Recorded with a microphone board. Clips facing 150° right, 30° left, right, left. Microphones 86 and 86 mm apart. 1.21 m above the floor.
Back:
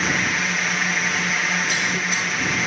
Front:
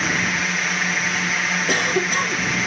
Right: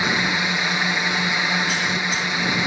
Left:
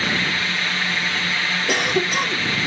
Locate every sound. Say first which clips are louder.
0.0 s a drone: even, right 2 dB; 65° right
1.7 s a cough: front 4 dB, left 3 dB; 65° left